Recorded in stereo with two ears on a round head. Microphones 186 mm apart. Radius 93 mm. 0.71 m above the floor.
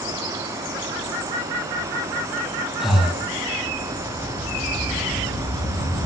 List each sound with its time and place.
2.8 s breathing: centre (ahead or behind), 4.5 m